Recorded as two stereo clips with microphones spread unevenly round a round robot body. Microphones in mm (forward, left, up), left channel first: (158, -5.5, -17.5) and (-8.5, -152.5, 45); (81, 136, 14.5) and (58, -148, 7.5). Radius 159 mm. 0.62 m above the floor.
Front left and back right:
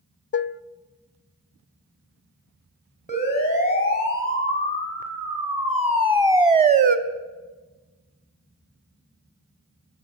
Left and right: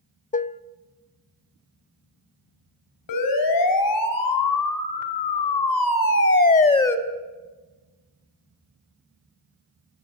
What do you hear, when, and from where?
0.3 s dishes clattering: 20° left, 0.5 m
3.1 s a siren: 105° left, 4 m; by 7.0 s 170° left, 1.0 m